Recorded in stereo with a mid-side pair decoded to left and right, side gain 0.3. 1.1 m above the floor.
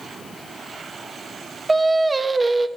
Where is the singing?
25° right, 0.9 m.